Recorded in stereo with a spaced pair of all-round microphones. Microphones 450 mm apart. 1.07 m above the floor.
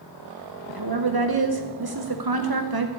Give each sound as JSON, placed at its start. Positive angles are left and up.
{"t": 0.7, "sound": "a woman speaking", "side_deg": -55, "distance_m": 0.8}